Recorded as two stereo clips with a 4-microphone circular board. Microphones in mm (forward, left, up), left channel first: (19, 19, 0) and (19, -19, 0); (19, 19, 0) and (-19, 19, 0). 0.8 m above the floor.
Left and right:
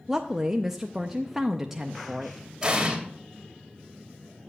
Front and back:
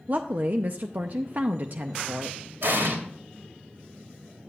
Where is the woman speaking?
170° right, 0.5 m.